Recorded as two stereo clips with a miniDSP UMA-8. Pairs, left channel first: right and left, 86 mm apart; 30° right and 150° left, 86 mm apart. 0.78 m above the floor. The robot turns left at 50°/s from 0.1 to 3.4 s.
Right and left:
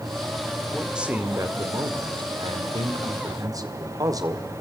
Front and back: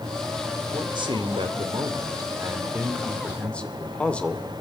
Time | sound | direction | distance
0.7 | a man speaking | straight behind | 2.5 m